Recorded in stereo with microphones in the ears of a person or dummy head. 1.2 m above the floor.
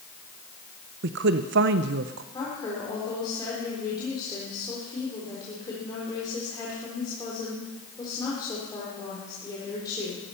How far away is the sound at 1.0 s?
About 0.6 m.